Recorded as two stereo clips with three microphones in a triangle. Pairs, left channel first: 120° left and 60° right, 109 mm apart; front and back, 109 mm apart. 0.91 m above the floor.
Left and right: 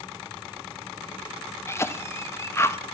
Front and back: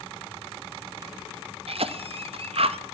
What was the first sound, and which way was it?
A cough, straight behind.